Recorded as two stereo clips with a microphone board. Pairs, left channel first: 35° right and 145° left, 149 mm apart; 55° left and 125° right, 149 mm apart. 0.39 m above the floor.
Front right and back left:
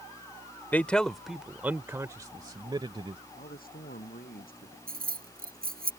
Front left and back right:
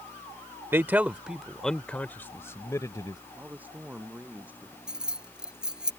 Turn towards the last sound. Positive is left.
turn(degrees=150)